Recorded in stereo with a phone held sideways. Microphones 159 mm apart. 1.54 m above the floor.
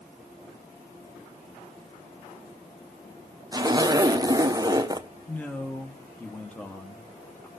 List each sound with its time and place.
3.5 s a zipper: 25° right (ahead or behind), 0.5 m
5.3 s a man speaking: 10° left (ahead or behind), 1.1 m